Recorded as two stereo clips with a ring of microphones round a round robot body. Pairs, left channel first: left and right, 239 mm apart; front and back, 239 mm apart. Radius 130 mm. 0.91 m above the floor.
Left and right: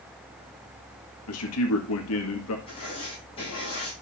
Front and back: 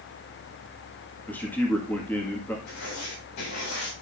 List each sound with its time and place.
1.3 s a man speaking: 80° left, 1.8 m
2.7 s writing: 20° left, 7.5 m